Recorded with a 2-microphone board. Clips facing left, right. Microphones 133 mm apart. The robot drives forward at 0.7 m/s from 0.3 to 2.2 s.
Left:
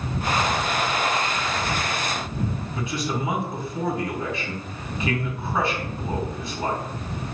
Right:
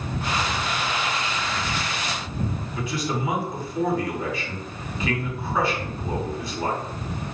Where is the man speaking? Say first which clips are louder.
Even; 25° left (ahead or behind), 1.9 m.